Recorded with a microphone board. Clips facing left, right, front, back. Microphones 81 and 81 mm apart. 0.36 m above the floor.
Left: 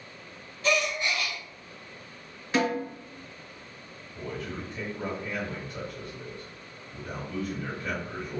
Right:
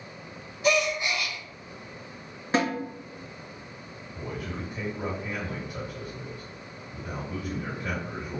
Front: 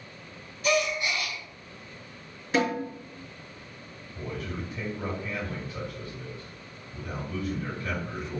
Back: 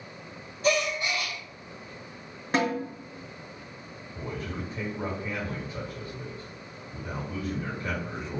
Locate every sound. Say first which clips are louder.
0.6 s a gasp: right 3 dB, even; 150° right, 1.9 m
2.5 s a snare drum: even, even; 140° right, 1.7 m
4.1 s a man speaking: even, even; 160° right, 1.8 m